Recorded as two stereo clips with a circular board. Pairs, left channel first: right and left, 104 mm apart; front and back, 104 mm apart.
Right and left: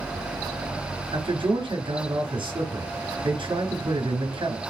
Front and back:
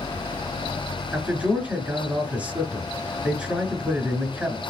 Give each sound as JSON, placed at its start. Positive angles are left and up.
{"t": 1.1, "sound": "a man speaking", "azimuth_deg": 110, "distance_m": 2.0}